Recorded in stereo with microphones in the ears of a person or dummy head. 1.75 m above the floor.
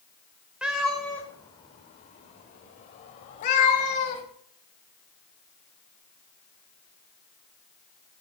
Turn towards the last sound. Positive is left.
turn(degrees=45)  # may be behind; listen again after turning